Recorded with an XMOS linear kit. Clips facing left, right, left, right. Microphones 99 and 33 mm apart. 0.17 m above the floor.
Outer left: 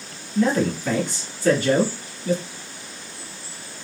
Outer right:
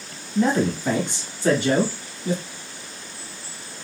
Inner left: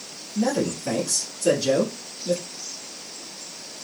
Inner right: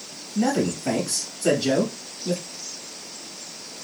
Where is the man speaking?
25° right (ahead or behind), 1.0 m.